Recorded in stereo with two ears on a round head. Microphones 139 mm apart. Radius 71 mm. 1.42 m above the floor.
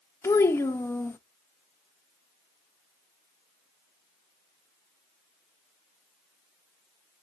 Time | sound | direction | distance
0.2 | a child speaking | 15° left (ahead or behind) | 0.5 m